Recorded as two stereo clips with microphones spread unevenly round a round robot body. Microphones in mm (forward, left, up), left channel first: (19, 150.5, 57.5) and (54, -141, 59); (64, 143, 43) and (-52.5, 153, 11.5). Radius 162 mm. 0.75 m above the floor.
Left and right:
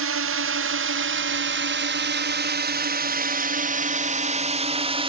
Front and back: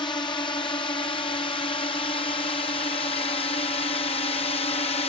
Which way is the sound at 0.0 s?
65° right.